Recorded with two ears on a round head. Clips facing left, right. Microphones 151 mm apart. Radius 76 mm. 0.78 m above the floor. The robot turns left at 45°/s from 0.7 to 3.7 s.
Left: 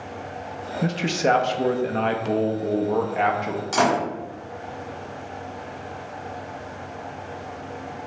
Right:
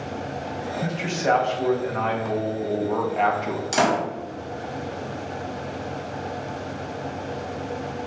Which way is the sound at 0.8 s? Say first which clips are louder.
Left 3 dB; 115° left.